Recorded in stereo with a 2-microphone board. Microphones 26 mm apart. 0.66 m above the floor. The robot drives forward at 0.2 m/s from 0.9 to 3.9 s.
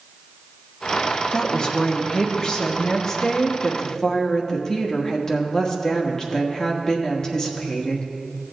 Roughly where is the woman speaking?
Left.